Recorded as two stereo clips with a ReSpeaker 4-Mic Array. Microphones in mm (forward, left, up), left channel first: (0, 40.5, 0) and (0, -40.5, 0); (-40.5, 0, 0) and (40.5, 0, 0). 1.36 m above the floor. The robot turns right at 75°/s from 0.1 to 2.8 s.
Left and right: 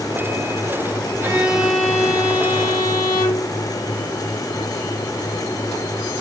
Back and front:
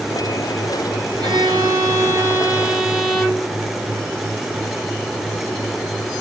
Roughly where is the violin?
Ahead right.